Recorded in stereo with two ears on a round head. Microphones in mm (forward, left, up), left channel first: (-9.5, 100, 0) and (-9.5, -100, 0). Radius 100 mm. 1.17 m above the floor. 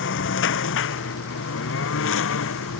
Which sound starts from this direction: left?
A lawn mower, at 0.0 s.